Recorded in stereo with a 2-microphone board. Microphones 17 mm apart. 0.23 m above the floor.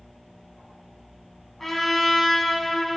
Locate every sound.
1.6 s a trumpet: 15° left (ahead or behind), 1.8 m